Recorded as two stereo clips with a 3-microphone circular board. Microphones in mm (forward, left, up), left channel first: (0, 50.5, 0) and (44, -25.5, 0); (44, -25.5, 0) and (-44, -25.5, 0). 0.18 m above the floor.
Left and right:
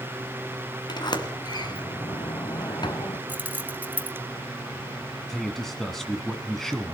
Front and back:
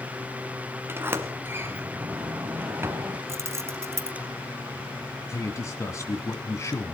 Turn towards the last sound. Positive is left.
turn(degrees=35)